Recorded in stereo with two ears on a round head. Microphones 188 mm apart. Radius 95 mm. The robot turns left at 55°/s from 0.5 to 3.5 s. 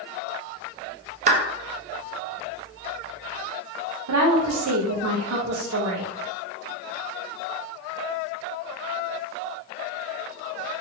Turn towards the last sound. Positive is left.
turn(degrees=-90)